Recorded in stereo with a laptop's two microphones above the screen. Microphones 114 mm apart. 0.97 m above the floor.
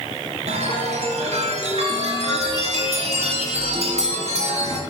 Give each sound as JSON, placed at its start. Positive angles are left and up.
{"t": 0.5, "sound": "a chime", "side_deg": -70, "distance_m": 2.0}